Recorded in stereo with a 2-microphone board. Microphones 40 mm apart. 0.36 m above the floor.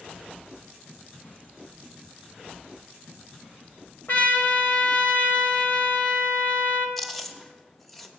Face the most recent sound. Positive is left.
turn(degrees=5)  # may be behind; listen again after turning